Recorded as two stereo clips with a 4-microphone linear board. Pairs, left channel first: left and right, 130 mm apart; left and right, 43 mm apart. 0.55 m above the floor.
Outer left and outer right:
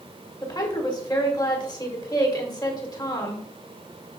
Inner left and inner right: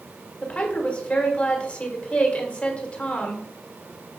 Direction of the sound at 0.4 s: 30° left (ahead or behind).